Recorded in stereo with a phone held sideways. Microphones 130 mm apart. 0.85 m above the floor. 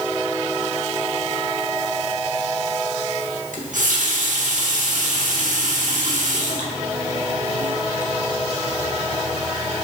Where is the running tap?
80° right, 1.3 m.